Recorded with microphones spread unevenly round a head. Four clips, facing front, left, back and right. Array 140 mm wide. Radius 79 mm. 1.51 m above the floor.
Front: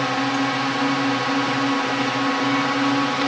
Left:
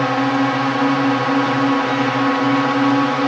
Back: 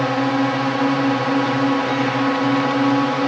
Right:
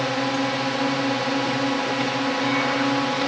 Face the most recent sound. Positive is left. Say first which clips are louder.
# left 7 dB, back 3 dB
turn(degrees=90)